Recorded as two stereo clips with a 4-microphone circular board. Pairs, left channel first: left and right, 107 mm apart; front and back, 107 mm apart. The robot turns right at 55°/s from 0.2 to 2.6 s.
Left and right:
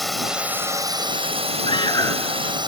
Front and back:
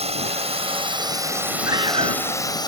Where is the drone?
Straight behind; by 2.7 s 50° right.